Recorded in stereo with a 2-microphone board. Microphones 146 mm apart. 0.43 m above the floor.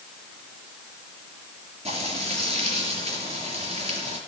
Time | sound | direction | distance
1.9 | frying | 45° right (ahead or behind) | 4.5 m